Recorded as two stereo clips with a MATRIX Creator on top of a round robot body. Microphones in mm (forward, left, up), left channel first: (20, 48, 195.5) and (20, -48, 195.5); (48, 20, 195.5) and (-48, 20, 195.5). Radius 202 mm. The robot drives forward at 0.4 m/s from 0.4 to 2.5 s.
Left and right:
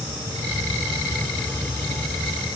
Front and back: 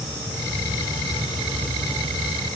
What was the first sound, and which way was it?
Only background noise.